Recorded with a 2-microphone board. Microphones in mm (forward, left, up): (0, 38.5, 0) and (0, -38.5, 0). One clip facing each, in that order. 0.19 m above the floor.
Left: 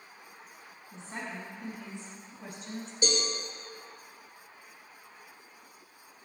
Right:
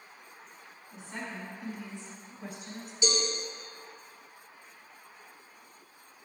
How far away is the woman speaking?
About 1.3 m.